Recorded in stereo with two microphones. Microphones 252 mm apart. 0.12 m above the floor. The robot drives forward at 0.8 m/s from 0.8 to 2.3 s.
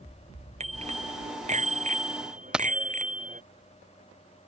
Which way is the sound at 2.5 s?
5° right (ahead or behind).